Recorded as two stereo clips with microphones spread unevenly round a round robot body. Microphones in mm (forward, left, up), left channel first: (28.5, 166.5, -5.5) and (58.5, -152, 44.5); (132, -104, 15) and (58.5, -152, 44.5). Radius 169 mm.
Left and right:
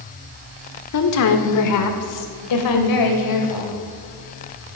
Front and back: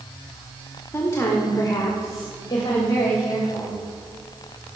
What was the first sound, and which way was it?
A woman speaking, 85° left.